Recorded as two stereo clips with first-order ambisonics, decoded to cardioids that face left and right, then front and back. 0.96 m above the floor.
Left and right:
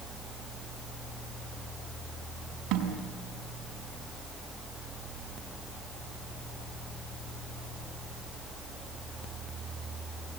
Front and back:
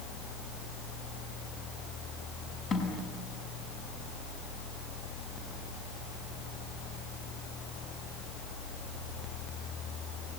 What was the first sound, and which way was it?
A snare drum, 60° right.